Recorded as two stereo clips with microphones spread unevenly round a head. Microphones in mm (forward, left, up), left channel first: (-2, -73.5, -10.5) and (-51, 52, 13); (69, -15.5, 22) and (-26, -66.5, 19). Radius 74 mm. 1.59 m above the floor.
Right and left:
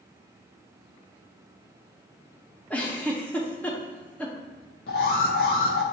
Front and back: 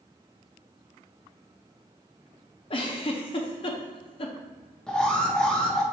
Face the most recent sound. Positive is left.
turn(degrees=-55)